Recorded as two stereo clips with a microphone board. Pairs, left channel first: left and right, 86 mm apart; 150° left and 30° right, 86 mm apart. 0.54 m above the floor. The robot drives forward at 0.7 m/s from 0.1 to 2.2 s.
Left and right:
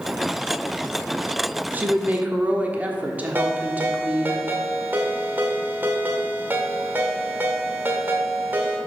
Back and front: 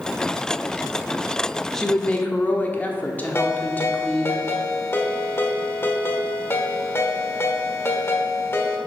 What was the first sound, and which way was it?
A woman speaking, 130° right.